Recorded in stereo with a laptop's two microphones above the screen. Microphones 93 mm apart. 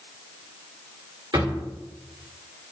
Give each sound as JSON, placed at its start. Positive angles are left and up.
{"t": 1.3, "sound": "a drawer", "side_deg": -55, "distance_m": 1.4}